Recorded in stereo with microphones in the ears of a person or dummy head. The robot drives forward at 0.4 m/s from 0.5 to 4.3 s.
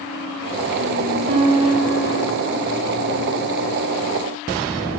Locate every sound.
1.3 s a guitar: 30° right (ahead or behind), 0.9 m; by 2.2 s 50° right (ahead or behind), 0.6 m